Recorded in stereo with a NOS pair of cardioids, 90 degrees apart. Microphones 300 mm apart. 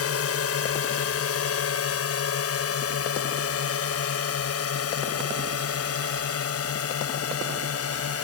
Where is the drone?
50° left.